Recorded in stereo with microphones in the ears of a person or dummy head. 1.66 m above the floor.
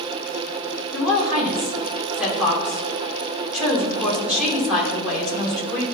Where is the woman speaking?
Centre (ahead or behind), 3 m.